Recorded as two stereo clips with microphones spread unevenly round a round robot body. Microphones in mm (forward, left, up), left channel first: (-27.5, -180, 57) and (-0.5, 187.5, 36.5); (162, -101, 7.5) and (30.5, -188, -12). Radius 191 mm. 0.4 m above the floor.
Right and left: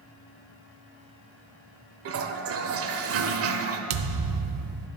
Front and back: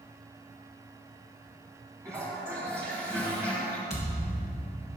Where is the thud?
115° left, 0.7 m.